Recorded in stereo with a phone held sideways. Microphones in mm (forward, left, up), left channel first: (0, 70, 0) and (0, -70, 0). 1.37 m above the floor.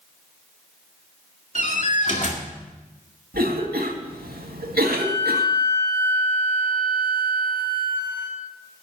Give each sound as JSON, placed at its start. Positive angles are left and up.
{"t": 1.6, "sound": "a door slam", "side_deg": 55, "distance_m": 1.9}
{"t": 3.3, "sound": "a cough", "side_deg": -90, "distance_m": 2.0}
{"t": 4.8, "sound": "a flute", "side_deg": 55, "distance_m": 4.5}